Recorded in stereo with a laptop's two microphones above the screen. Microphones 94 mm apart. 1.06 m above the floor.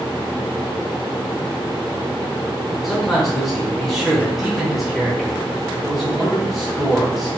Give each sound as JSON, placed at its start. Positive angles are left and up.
{"t": 2.8, "sound": "a man speaking", "side_deg": 0, "distance_m": 0.8}